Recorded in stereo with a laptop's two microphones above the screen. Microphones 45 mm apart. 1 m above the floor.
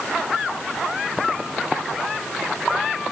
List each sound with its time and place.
Only background noise.